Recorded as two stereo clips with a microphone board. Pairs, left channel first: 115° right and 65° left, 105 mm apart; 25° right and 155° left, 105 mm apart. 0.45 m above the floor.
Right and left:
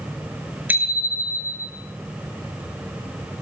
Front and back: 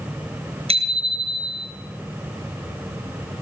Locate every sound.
0.7 s a bicycle bell: 140° left, 5.5 m